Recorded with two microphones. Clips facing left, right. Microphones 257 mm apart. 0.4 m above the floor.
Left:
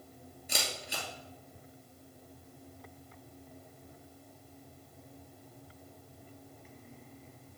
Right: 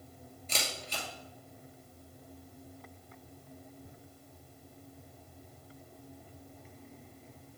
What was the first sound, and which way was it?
A camera shutter, 10° left (ahead or behind).